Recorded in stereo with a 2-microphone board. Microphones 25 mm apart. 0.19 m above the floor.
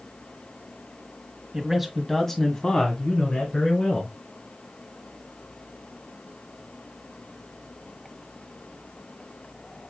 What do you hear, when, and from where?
1.5 s a man speaking: 15° right (ahead or behind), 1.3 m; by 4.1 s 55° left (ahead or behind), 2.5 m